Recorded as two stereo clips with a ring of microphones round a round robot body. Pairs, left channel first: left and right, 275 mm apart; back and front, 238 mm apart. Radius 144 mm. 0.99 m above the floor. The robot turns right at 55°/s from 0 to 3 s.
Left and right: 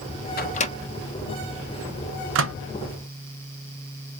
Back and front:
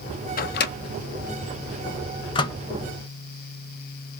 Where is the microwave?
135° left, 0.5 m; by 2.6 s 105° right, 0.5 m.